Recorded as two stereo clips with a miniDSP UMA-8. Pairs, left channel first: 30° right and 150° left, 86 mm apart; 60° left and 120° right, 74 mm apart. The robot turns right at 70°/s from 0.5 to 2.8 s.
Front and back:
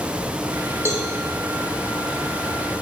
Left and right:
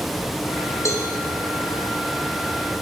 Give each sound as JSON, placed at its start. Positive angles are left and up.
{"t": 0.8, "sound": "a cowbell", "azimuth_deg": 35, "distance_m": 1.2}